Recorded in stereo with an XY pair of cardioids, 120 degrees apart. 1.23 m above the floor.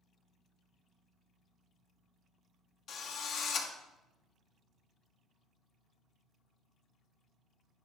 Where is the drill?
65° left, 1.6 m.